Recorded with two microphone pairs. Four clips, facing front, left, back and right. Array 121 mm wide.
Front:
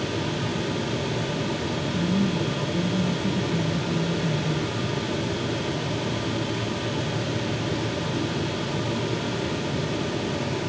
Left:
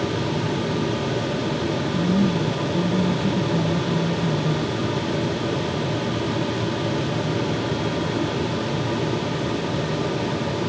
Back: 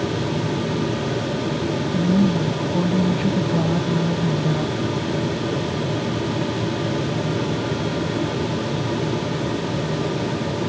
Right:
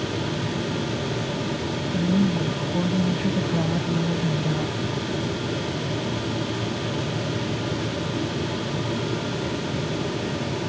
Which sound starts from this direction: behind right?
A woman speaking, at 1.9 s.